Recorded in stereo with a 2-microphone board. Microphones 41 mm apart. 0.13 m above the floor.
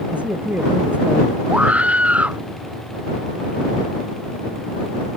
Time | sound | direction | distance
0.1 | a man speaking | 35° right (ahead or behind) | ?
1.5 | a scream | 35° right (ahead or behind) | ?